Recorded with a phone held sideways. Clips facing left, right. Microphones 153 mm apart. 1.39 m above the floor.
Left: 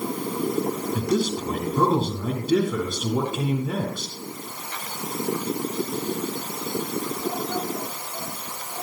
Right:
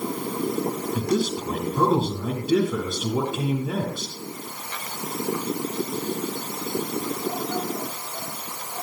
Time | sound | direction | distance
0.9 | a man speaking | centre (ahead or behind) | 8.5 m